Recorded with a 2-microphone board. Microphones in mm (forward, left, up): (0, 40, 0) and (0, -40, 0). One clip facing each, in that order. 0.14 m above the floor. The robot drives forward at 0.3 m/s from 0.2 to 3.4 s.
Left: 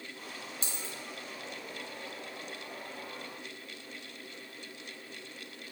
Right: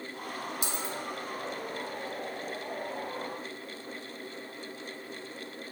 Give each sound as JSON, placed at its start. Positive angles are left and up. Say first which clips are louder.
{"t": 0.6, "sound": "a dropped coin", "louder": "right 7 dB", "side_deg": -10, "distance_m": 0.9}